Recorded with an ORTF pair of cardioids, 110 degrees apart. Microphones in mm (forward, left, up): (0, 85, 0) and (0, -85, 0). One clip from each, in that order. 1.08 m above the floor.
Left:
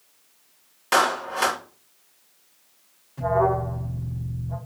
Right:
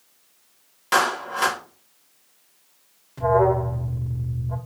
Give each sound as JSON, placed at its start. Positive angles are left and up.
{"t": 0.9, "sound": "a clap", "azimuth_deg": 5, "distance_m": 2.0}
{"t": 3.2, "sound": "an alarm", "azimuth_deg": -30, "distance_m": 2.5}